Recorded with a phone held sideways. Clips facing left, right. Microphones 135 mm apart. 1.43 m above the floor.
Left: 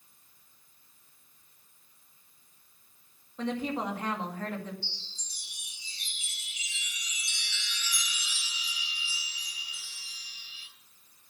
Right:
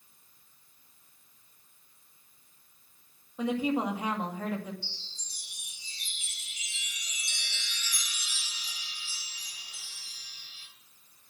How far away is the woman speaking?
About 2 m.